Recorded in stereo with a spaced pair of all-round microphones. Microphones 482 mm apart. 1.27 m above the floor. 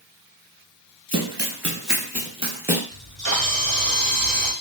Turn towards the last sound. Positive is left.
turn(degrees=-40)  # may be behind; listen again after turning